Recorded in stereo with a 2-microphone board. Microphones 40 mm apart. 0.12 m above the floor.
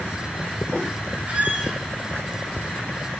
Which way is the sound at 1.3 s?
40° right (ahead or behind).